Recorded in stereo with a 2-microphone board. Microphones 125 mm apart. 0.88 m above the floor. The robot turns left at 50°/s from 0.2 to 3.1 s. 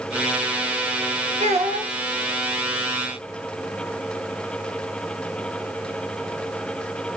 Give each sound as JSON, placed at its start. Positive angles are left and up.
{"t": 1.4, "sound": "a child speaking", "side_deg": -60, "distance_m": 1.3}